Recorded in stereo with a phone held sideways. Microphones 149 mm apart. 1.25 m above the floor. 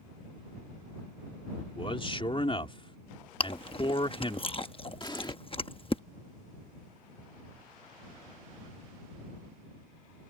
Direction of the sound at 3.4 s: 35° left (ahead or behind).